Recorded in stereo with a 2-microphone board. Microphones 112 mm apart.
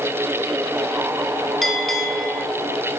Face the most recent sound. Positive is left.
turn(degrees=0)  # may be behind; listen again after turning